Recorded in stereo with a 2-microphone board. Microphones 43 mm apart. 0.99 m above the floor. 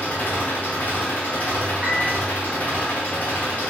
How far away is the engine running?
About 0.8 m.